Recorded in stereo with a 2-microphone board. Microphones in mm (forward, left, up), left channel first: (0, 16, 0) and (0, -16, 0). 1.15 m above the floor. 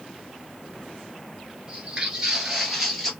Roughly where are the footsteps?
Right.